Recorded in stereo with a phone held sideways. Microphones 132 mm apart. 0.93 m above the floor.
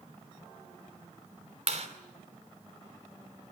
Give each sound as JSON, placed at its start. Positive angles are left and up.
{"t": 1.7, "sound": "a clap", "side_deg": -60, "distance_m": 3.0}